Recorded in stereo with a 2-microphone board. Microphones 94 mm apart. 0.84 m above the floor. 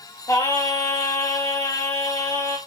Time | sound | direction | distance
0.3 | singing | 35° left (ahead or behind) | 4.5 m